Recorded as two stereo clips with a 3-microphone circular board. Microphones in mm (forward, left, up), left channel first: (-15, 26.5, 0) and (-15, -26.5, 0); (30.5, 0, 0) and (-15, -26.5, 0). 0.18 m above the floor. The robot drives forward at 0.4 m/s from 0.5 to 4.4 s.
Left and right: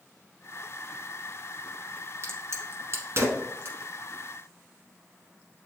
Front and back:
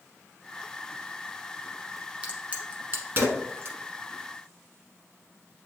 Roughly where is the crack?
Right.